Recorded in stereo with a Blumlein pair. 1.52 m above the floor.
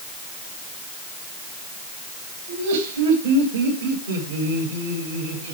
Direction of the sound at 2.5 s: 55° right.